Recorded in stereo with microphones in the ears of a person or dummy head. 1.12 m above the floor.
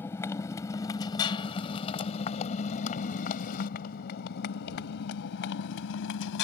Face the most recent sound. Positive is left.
turn(degrees=80)